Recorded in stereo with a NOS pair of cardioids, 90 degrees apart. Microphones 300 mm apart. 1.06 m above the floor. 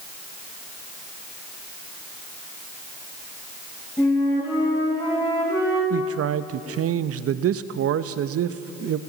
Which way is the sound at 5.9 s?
50° right.